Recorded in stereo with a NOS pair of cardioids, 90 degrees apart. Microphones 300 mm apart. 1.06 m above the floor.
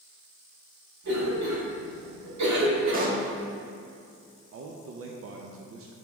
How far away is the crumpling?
No crumpling in this recording.